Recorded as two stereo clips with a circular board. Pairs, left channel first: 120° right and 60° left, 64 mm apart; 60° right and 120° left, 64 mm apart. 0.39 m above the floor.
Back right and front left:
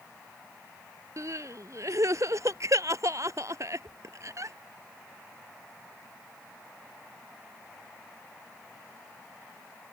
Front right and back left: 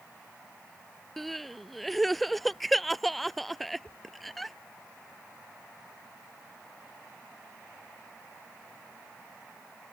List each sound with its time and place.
1.2 s crying: 30° left